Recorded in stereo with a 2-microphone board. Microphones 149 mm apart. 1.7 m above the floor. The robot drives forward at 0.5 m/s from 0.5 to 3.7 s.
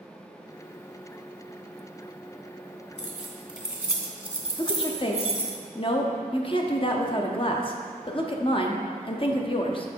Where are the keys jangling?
5° right (ahead or behind), 1.0 m.